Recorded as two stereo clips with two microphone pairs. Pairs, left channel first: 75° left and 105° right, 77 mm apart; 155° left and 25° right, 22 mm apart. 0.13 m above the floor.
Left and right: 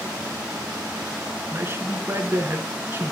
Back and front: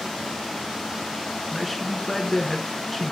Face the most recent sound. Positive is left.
turn(degrees=-125)